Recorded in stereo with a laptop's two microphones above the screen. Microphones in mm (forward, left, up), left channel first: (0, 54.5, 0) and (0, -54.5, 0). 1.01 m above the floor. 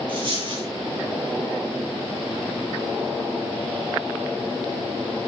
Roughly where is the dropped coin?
Right.